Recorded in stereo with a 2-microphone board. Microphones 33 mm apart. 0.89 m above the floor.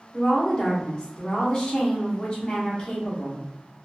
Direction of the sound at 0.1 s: 25° left (ahead or behind).